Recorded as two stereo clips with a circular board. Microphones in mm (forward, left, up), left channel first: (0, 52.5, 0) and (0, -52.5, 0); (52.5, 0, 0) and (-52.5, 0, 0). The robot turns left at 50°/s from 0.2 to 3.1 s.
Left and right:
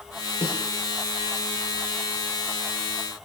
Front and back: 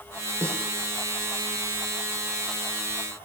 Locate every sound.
0.4 s a snare drum: 120° left, 6 m; by 0.6 s 110° left, 6 m